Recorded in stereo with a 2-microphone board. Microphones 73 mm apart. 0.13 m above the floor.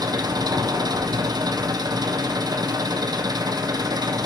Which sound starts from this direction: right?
An engine running, at 0.0 s.